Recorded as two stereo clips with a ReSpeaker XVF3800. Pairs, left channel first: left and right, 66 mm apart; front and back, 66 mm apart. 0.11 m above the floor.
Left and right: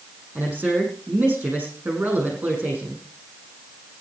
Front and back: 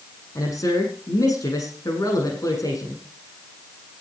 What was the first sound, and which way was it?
A man speaking, 20° right.